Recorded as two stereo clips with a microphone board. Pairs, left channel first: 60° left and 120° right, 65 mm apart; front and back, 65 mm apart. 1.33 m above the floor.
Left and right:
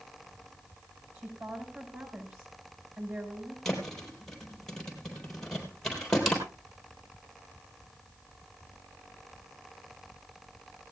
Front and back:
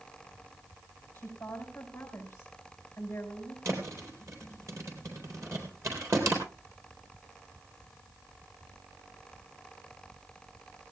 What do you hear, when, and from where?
1.1 s a woman speaking: 65° right, 6 m
3.6 s a thud: 145° left, 4 m